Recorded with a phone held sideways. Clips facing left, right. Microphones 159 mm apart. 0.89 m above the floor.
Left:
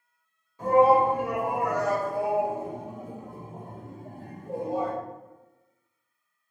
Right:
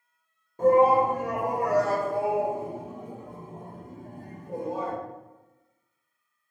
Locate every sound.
0.6 s a shout: 50° right (ahead or behind), 1.4 m; by 4.9 s 35° left (ahead or behind), 1.5 m